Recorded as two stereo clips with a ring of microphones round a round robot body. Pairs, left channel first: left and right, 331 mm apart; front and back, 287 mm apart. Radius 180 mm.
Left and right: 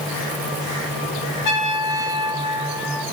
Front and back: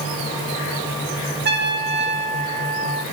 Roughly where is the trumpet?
Behind left.